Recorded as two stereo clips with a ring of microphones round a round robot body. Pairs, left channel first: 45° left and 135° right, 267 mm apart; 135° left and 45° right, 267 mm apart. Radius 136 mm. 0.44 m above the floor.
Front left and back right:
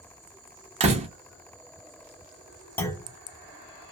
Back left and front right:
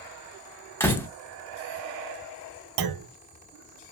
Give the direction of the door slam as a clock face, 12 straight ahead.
5 o'clock.